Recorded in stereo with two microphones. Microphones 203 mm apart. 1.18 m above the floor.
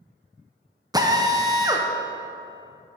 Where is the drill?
20° right (ahead or behind), 0.7 m.